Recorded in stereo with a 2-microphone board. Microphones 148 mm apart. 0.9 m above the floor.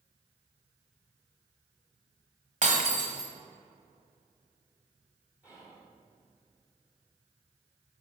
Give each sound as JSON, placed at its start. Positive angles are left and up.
{"t": 2.6, "sound": "breaking glass", "side_deg": -55, "distance_m": 1.4}
{"t": 5.4, "sound": "whispering", "side_deg": -10, "distance_m": 2.5}